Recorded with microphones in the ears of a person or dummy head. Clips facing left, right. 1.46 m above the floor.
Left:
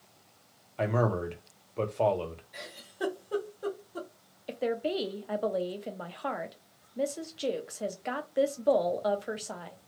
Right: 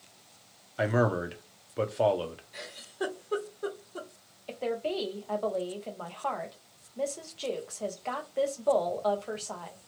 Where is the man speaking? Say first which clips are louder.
Right 1 dB; 15° right (ahead or behind), 0.6 m.